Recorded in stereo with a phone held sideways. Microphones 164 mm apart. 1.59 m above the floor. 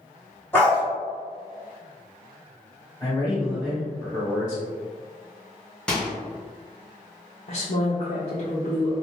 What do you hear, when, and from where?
0.5 s a dog barking: 15° left (ahead or behind), 1.2 m
3.0 s a man speaking: 25° left (ahead or behind), 1.0 m
5.9 s a microwave: 5° left (ahead or behind), 0.7 m
7.5 s a woman speaking: 50° left (ahead or behind), 0.6 m